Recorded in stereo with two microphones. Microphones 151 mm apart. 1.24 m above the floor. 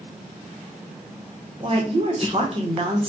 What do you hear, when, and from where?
1.6 s a woman speaking: 40° right (ahead or behind), 0.9 m